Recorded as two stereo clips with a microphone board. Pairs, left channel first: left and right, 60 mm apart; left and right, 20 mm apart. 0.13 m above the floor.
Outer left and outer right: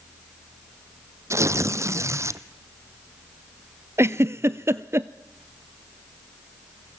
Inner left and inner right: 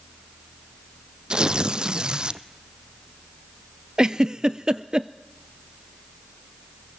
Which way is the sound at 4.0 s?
45° right (ahead or behind).